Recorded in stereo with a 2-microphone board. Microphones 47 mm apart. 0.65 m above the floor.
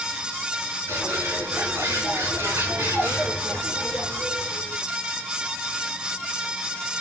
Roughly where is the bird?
Right.